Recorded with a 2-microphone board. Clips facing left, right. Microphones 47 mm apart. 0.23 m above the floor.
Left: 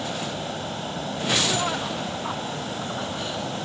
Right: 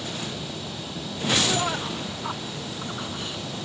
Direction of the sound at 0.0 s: 40° left (ahead or behind).